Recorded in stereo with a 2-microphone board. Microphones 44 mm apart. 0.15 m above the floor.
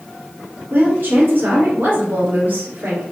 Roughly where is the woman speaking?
Right.